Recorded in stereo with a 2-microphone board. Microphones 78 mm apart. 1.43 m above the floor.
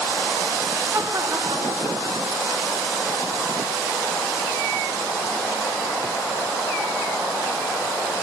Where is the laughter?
25° right (ahead or behind), 0.8 m; by 2.8 s 85° right, 2 m.